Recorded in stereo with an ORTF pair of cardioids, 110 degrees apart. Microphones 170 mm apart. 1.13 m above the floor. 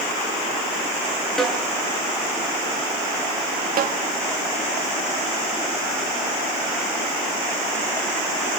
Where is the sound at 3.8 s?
60° right, 1.5 m.